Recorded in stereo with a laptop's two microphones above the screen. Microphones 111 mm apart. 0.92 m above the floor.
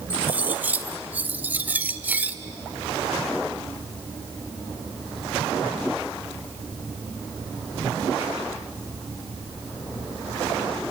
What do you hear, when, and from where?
0.1 s cutlery clinking: 15° right (ahead or behind), 1.4 m